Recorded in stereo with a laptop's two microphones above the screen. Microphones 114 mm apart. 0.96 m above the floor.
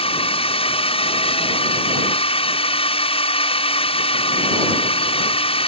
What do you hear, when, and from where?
0.0 s a drone: 55° left (ahead or behind)